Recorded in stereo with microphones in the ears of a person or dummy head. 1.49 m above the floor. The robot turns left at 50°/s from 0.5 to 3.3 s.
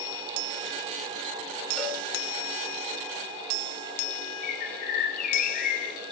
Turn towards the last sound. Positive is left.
turn(degrees=50)  # may be behind; listen again after turning